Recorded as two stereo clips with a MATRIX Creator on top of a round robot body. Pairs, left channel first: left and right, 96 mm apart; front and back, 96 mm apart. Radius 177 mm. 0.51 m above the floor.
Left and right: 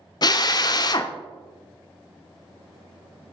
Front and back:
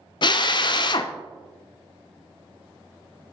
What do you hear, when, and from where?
0.2 s a drill: 40° left, 0.5 m